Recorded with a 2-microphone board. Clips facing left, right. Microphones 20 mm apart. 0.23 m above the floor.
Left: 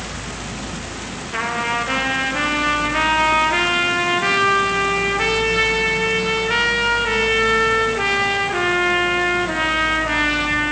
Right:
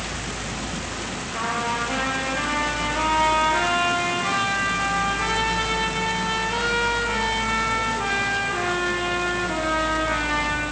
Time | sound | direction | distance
1.3 | a trumpet | 50° left (ahead or behind) | 5.5 m